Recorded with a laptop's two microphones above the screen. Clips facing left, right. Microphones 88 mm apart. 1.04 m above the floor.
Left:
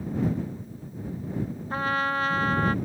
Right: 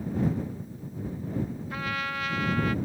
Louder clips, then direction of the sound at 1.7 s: Left 10 dB; 35° left (ahead or behind).